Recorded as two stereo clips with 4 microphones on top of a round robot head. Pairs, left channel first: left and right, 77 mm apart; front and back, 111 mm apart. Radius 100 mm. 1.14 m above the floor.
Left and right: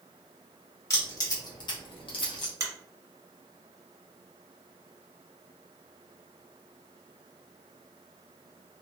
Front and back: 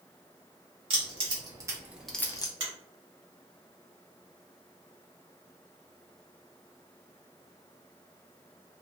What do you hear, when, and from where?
0.9 s keys jangling: 135° left, 1.7 m; by 2.5 s 50° left, 0.8 m
2.6 s a finger snap: 135° right, 1.6 m